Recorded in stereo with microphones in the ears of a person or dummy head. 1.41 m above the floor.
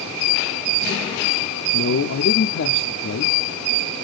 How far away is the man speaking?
About 0.6 m.